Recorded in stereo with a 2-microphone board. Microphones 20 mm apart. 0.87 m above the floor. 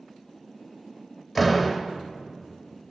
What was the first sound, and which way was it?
A door slam, 10° left (ahead or behind).